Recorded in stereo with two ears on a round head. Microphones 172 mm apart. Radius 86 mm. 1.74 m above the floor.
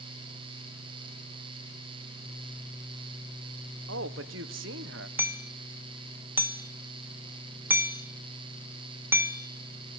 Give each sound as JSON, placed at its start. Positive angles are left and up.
{"t": 3.9, "sound": "a man speaking", "side_deg": -70, "distance_m": 1.5}
{"t": 5.2, "sound": "hammering", "side_deg": -10, "distance_m": 1.4}